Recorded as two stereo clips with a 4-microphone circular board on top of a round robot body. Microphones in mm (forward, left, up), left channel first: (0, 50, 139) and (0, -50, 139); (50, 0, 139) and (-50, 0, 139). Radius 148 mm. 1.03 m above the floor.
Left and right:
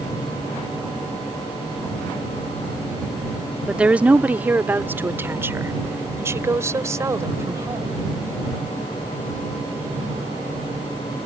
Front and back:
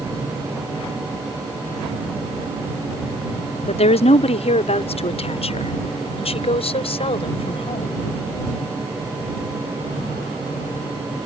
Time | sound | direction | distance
3.7 | a woman speaking | 10° right | ?